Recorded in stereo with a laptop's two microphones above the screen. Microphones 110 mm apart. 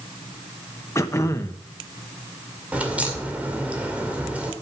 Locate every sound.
0.9 s throat clearing: 25° left (ahead or behind), 1.0 m
2.7 s a crack: 10° right (ahead or behind), 2 m